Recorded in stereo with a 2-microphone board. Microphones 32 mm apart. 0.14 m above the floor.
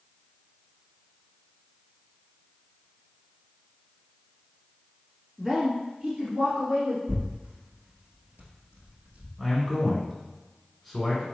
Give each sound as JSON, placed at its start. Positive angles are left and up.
{"t": 5.4, "sound": "a woman speaking", "side_deg": -15, "distance_m": 1.2}
{"t": 7.1, "sound": "tearing paper", "side_deg": -70, "distance_m": 1.0}
{"t": 9.4, "sound": "a man speaking", "side_deg": -5, "distance_m": 1.5}